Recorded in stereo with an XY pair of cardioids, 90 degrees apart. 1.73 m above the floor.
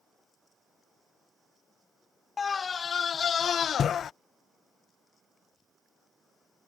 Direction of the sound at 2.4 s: 40° left.